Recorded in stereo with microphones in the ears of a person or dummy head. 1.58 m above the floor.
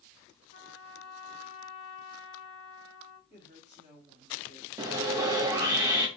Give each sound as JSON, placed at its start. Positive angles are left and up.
{"t": 0.5, "sound": "a trumpet", "side_deg": 40, "distance_m": 1.0}
{"t": 3.3, "sound": "a woman speaking", "side_deg": -25, "distance_m": 1.8}
{"t": 4.8, "sound": "sawing", "side_deg": -15, "distance_m": 0.7}